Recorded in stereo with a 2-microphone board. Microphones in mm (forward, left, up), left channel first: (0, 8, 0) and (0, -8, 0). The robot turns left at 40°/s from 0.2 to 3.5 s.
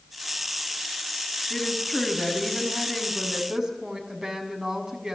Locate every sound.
1.5 s a woman speaking: 35° left, 5.5 m; by 5.2 s 45° right, 5.5 m